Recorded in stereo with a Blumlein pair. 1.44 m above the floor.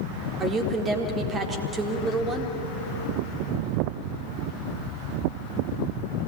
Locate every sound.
0.4 s a woman speaking: 20° right, 4 m